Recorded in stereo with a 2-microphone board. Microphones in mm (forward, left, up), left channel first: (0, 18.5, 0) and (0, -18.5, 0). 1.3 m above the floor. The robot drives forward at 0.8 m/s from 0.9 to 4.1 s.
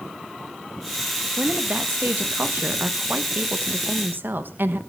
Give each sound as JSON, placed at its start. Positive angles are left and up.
{"t": 1.4, "sound": "a woman speaking", "side_deg": -40, "distance_m": 2.0}